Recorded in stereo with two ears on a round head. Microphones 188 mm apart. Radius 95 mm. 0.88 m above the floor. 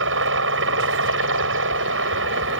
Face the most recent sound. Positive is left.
turn(degrees=-65)  # may be behind; listen again after turning